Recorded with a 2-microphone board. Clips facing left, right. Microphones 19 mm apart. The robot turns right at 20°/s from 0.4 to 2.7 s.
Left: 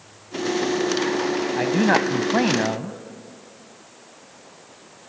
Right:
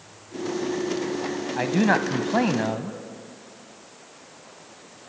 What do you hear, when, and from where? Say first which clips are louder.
1.6 s a man speaking: left 1 dB; centre (ahead or behind), 1.1 m; by 3.0 s 10° left (ahead or behind), 1.1 m